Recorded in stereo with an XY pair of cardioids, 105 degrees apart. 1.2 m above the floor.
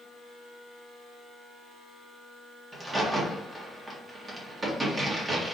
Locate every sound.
2.7 s a crack: 25° right, 1.4 m